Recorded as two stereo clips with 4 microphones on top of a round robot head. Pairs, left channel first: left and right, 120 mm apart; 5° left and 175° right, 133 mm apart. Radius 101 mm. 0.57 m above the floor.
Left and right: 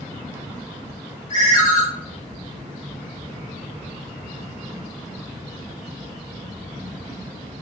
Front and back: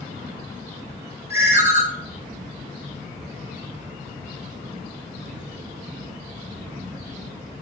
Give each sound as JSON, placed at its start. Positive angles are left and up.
{"t": 1.3, "sound": "a ringtone", "azimuth_deg": 115, "distance_m": 1.5}